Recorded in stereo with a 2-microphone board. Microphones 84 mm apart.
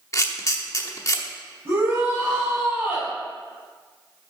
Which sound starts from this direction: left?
A camera shutter, at 0.1 s.